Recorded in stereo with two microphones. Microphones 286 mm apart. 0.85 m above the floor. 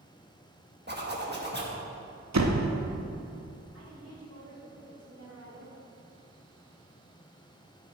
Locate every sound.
0.9 s a zipper: 35° right (ahead or behind), 1.4 m
2.3 s a door slam: 70° right (ahead or behind), 0.7 m
3.7 s a woman speaking: 60° right (ahead or behind), 2 m